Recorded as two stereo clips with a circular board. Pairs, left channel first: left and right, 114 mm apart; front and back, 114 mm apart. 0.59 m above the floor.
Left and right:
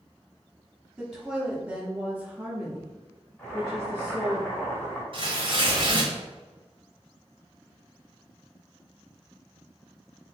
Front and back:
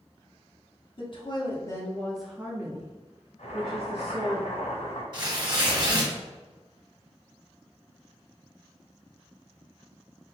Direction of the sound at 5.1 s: 130° right.